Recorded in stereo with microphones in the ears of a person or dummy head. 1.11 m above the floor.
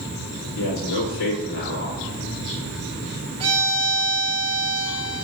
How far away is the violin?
About 1.6 m.